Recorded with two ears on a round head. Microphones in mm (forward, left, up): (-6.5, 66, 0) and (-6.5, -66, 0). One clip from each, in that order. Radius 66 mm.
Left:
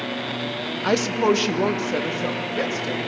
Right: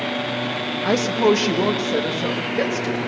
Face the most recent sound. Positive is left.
turn(degrees=10)  # may be behind; listen again after turning